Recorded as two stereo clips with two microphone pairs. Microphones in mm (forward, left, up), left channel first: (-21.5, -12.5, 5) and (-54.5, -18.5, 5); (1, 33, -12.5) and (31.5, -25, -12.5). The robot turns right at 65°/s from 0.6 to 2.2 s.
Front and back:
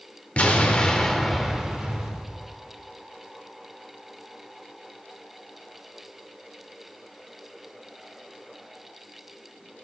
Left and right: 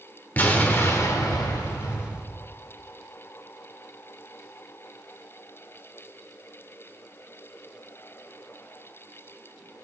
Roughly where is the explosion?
Ahead left.